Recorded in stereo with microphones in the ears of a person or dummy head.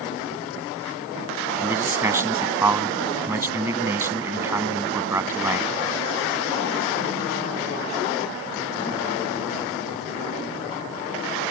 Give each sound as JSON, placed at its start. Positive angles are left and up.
{"t": 1.6, "sound": "a man speaking", "side_deg": -10}